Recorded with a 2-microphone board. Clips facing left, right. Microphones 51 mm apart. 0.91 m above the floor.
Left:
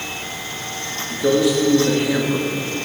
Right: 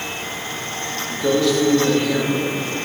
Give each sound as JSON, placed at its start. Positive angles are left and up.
{"t": 1.1, "sound": "a man speaking", "side_deg": 15, "distance_m": 1.2}